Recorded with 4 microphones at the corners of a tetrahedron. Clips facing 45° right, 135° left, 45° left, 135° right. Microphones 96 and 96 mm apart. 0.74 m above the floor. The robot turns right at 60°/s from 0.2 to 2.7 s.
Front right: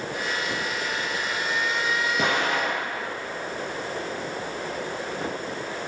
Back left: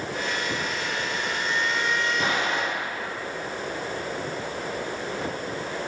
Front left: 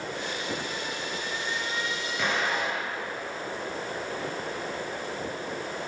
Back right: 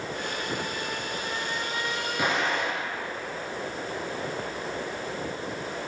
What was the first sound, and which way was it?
An explosion, 60° right.